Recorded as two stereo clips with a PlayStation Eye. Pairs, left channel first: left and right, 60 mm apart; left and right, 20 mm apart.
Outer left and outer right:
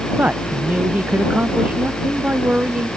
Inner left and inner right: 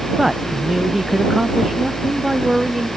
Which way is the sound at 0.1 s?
25° right (ahead or behind).